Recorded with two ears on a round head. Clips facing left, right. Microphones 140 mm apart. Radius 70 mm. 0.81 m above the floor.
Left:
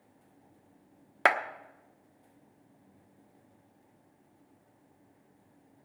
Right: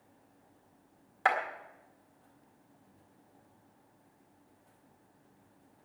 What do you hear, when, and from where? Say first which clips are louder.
1.2 s a clap: left 2 dB; 75° left (ahead or behind), 1.1 m